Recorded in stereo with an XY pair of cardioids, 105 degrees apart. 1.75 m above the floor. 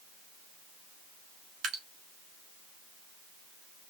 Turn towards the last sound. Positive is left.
turn(degrees=-70)